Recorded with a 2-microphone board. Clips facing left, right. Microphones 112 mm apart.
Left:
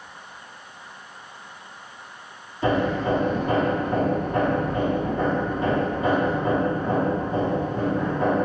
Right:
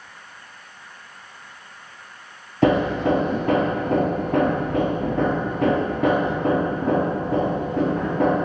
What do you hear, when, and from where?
2.6 s hammering: 80° right, 1.9 m